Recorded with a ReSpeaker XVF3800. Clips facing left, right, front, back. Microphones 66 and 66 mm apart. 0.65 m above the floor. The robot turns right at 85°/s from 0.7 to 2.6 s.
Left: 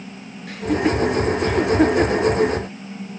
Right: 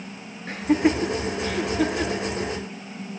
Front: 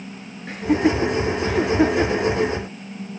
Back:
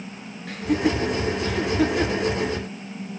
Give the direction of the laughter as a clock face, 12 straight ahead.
2 o'clock.